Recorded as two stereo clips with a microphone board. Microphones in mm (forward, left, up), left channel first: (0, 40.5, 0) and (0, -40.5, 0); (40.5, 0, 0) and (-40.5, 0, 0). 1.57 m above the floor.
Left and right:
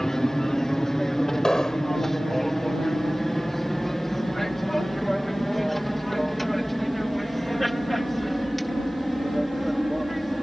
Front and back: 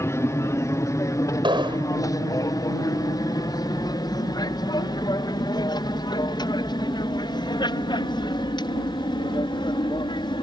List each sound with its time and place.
0.0 s an aircraft: 10° left; by 10.4 s straight ahead
1.4 s an explosion: 175° left